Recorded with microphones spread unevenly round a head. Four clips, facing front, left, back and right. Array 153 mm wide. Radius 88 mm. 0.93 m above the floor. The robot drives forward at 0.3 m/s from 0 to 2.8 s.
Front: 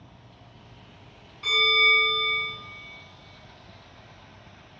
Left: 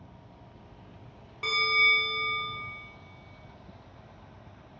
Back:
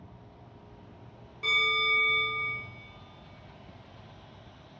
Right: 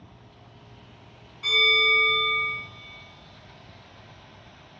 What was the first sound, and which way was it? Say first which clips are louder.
A bell: right 3 dB, front 5 dB; 105° left.